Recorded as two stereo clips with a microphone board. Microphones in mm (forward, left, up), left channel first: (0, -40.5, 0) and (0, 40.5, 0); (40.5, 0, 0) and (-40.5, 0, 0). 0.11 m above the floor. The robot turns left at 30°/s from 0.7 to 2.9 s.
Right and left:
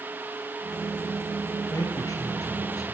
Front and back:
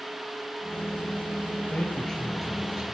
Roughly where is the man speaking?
Ahead right.